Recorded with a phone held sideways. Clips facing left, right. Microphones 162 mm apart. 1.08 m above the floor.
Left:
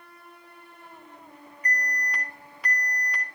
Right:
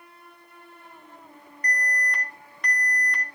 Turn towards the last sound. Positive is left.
turn(degrees=5)  # may be behind; listen again after turning